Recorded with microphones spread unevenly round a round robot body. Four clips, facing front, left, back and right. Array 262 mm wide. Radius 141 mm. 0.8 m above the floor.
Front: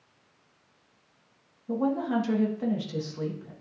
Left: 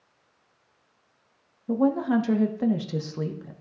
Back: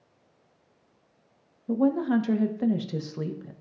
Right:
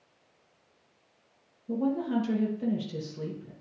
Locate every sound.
1.7 s a woman speaking: 105° left, 0.9 m